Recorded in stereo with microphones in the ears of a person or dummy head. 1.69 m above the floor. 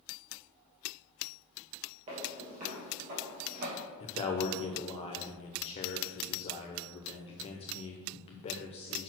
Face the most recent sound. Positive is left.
turn(degrees=25)  # may be behind; listen again after turning